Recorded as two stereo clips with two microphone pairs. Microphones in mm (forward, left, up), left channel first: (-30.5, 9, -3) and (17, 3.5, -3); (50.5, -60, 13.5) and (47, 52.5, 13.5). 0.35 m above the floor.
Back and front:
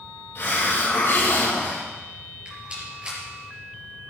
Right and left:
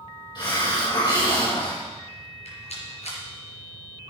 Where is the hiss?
140° right, 4 m.